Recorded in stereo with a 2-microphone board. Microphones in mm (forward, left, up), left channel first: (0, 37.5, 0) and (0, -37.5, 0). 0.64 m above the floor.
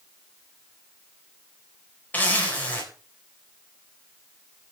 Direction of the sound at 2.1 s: 25° left (ahead or behind).